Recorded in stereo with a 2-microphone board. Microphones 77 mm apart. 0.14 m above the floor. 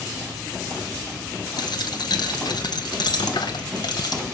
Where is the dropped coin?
65° left (ahead or behind), 1.1 m.